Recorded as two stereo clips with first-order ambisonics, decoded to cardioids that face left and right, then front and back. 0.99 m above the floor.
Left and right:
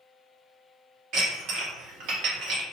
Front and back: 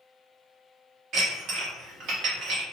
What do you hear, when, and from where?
1.1 s dishes clattering: 130° right, 0.8 m